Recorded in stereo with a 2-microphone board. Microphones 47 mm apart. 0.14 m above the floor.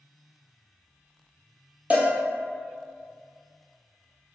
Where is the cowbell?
35° right (ahead or behind), 0.6 m.